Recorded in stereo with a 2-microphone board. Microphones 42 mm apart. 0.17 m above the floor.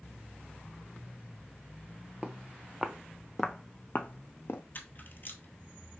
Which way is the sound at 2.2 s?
20° right (ahead or behind).